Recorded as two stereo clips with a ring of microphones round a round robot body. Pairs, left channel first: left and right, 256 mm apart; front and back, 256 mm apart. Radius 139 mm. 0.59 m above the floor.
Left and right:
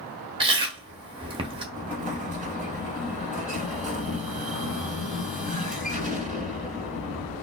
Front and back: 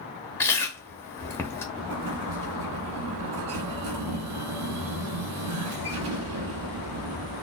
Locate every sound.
0.4 s chewing: 65° right, 0.8 m
1.7 s an explosion: 150° right, 1.5 m